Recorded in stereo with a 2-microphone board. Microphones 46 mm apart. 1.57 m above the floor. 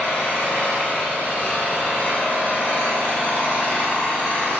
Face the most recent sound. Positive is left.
turn(degrees=35)  # may be behind; listen again after turning